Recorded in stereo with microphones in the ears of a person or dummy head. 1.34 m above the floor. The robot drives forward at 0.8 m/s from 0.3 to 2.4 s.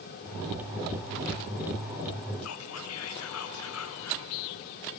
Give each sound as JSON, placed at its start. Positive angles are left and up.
{"t": 2.4, "sound": "whispering", "side_deg": 80, "distance_m": 0.5}